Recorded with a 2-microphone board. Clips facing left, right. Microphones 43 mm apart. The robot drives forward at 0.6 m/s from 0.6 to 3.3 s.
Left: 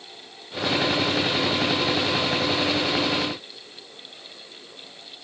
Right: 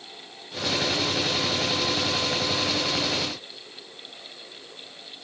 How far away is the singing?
No singing in this recording.